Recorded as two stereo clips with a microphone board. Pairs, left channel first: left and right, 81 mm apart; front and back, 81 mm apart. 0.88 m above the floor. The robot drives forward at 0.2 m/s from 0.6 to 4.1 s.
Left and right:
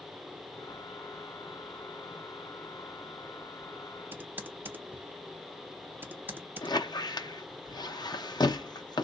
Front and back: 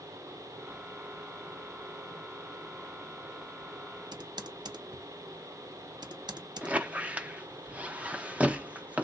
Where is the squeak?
110° left, 0.5 m.